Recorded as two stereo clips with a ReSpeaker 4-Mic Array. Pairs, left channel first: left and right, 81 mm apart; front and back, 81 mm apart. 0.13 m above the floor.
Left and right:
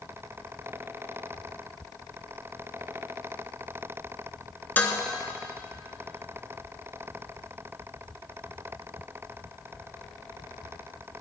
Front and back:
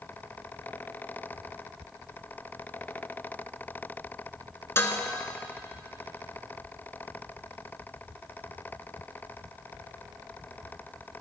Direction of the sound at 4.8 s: 35° left.